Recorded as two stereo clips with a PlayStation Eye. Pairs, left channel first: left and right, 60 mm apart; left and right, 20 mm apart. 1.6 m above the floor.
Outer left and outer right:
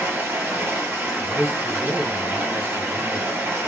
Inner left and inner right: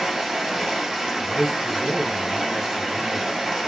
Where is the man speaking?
30° right (ahead or behind), 1.0 m.